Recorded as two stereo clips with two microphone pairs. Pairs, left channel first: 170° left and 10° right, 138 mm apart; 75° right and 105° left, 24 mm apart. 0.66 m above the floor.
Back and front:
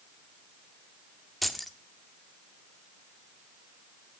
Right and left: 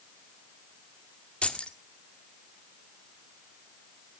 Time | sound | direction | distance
1.4 | keys jangling | 100° right | 1.0 m